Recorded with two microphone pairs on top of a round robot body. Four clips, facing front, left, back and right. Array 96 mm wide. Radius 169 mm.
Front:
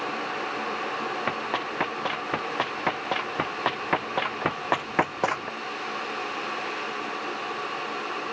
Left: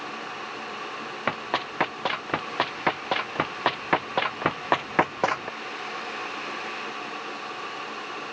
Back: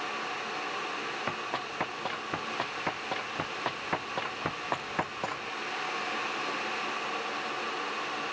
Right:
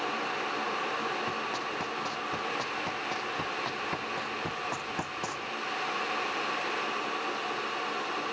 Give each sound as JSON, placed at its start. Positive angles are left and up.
{"t": 1.3, "sound": "running footsteps", "azimuth_deg": 75}